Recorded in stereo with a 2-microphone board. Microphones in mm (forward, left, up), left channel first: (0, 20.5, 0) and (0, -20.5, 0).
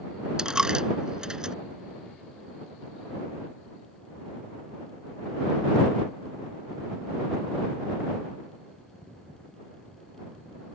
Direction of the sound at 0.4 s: 15° right (ahead or behind).